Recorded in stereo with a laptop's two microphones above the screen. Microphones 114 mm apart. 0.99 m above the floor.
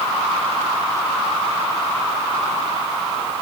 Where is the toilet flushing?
No toilet flushing in this recording.